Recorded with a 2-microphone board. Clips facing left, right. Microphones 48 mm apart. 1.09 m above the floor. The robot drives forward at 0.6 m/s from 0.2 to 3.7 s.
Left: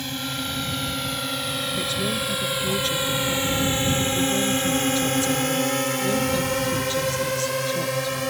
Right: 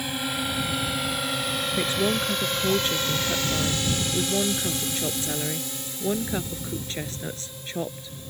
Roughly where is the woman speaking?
Right.